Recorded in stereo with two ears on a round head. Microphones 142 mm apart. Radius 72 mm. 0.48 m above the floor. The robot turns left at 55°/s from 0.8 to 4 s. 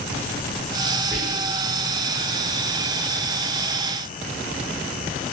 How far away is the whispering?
About 1.4 m.